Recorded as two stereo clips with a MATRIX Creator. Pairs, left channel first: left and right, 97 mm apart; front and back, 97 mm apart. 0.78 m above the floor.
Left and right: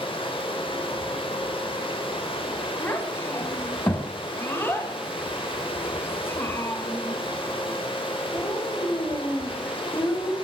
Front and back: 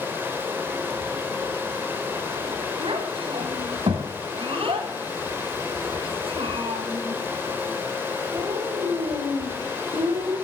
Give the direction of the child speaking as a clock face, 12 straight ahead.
7 o'clock.